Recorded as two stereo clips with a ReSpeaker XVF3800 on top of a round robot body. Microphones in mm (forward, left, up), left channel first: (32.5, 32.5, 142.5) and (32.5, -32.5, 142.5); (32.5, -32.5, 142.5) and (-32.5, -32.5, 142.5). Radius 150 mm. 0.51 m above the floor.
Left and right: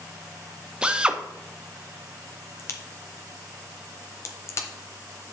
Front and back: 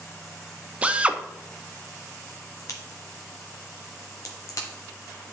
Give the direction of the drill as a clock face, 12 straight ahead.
5 o'clock.